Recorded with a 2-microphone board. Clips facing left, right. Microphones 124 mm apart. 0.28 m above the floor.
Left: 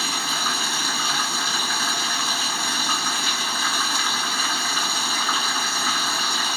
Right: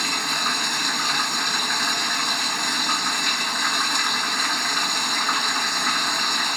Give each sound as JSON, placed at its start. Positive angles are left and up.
{"t": 0.0, "sound": "running water", "side_deg": 5, "distance_m": 0.9}